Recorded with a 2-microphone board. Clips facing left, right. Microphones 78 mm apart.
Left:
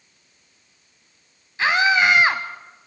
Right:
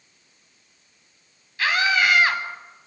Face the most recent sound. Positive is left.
turn(degrees=25)  # may be behind; listen again after turning